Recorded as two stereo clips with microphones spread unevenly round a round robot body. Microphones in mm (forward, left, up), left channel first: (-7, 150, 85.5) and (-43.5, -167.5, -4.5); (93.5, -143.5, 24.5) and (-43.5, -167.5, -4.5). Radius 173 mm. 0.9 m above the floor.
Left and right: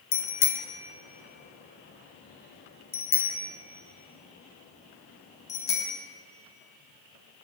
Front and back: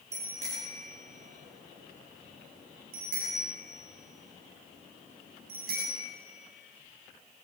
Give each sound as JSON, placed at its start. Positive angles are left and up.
{"t": 0.1, "sound": "a bicycle bell", "azimuth_deg": 125, "distance_m": 2.5}